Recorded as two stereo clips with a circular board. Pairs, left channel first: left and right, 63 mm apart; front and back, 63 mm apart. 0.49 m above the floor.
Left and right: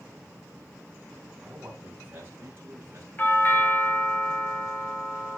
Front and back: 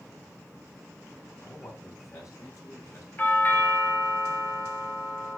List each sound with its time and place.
1.4 s a man speaking: 25° right, 4 m; by 3.1 s 40° right, 4.5 m
3.2 s a doorbell: 50° left, 2 m